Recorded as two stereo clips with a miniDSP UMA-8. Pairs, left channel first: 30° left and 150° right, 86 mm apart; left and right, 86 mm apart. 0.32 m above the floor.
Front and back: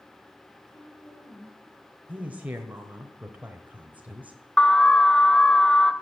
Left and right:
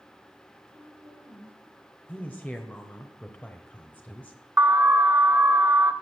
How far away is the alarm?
About 0.7 m.